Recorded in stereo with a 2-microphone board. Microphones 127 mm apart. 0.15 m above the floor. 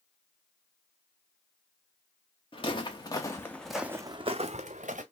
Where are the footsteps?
45° left (ahead or behind), 1.1 m; by 5.0 s 75° right (ahead or behind), 0.8 m.